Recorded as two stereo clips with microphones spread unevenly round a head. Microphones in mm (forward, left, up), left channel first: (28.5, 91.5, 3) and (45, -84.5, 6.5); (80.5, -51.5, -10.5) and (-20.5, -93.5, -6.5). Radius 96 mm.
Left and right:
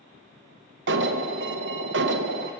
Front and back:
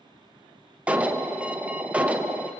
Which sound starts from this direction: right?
An alarm, at 0.9 s.